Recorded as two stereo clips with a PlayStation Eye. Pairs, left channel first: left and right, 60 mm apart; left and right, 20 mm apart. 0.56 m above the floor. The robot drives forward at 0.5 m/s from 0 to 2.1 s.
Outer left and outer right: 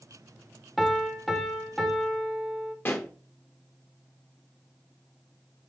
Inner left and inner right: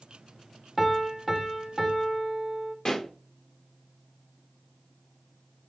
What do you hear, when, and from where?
0.8 s a piano: centre (ahead or behind), 0.5 m
2.9 s a pop: 40° left (ahead or behind), 0.8 m